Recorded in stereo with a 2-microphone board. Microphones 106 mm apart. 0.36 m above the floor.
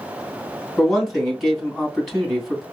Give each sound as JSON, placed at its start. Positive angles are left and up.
{"t": 0.8, "sound": "a man speaking", "side_deg": 5, "distance_m": 2.5}